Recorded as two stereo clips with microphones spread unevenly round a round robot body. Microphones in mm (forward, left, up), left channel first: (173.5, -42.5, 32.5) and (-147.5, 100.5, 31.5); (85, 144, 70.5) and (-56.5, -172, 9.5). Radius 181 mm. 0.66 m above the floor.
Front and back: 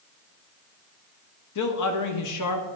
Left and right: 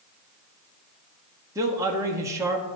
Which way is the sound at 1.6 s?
45° right.